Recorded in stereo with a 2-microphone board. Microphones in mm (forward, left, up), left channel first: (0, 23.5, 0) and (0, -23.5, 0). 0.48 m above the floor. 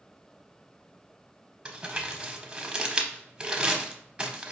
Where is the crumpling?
20° right (ahead or behind), 0.6 m.